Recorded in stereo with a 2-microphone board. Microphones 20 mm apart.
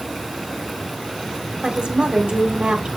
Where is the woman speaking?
50° right (ahead or behind), 1.3 m.